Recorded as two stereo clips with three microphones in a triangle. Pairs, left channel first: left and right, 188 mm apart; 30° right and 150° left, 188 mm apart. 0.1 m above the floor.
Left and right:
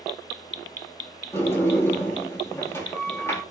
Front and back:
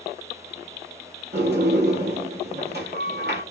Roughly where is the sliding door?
Behind.